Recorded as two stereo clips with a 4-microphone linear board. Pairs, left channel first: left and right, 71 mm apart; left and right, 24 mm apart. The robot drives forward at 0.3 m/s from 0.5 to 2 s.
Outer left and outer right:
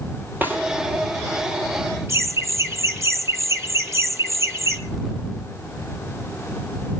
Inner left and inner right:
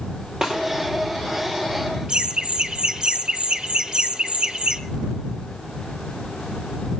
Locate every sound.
0.4 s a snare drum: 25° right (ahead or behind), 4 m
2.1 s laughter: 40° right (ahead or behind), 1.4 m